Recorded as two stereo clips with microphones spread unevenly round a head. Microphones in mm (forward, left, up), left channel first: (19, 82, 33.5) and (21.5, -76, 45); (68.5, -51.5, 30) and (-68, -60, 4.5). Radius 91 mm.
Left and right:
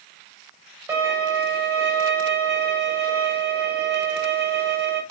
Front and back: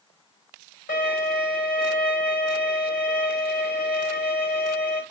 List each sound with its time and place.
0.9 s a violin: 15° right, 6.5 m